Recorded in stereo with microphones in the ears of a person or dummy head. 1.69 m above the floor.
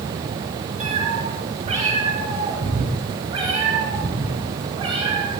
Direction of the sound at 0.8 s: 35° right (ahead or behind).